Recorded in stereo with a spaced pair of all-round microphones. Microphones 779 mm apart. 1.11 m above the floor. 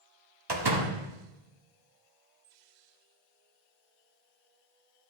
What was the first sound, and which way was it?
A door slam, 30° right (ahead or behind).